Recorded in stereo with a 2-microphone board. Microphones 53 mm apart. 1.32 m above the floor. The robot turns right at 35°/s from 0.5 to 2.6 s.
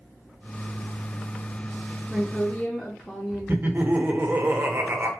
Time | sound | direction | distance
2.1 | a woman speaking | 5° right (ahead or behind) | 0.7 m
3.5 | laughter | 40° right (ahead or behind) | 0.6 m